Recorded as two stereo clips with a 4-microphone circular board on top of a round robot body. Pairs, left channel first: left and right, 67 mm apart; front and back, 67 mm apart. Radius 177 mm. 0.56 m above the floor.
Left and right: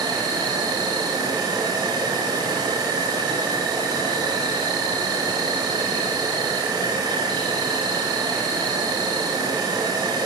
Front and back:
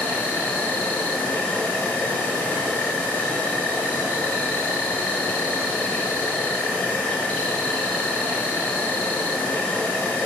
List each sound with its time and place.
0.0 s an insect: 70° right, 0.8 m